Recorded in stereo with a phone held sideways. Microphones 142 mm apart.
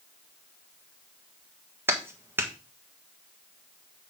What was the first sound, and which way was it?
A clap, 15° right (ahead or behind).